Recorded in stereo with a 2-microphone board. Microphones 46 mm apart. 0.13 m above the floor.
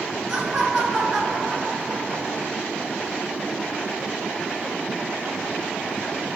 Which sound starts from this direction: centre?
Laughter, at 0.3 s.